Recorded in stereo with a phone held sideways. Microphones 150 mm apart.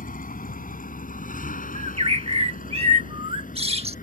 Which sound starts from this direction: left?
A vehicle, at 0.0 s.